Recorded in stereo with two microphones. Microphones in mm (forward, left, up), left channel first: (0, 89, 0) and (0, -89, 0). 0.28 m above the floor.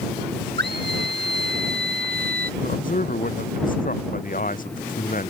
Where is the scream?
70° right (ahead or behind); by 2.5 s 55° right (ahead or behind).